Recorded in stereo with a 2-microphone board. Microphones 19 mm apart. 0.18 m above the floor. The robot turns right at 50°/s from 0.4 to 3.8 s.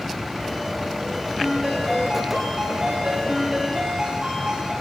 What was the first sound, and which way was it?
A ringtone, 165° right.